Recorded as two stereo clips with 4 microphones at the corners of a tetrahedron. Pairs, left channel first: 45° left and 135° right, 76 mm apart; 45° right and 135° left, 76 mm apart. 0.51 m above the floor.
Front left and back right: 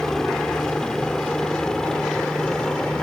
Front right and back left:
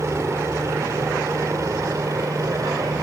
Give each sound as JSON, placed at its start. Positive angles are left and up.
{"t": 0.0, "sound": "a helicopter", "azimuth_deg": 125}